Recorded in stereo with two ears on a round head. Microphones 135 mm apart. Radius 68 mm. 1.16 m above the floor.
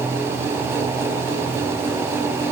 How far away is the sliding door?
No sliding door in this recording.